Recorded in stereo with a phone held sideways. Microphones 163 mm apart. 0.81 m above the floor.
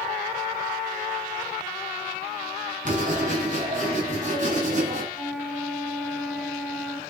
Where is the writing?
50° right (ahead or behind), 8 m.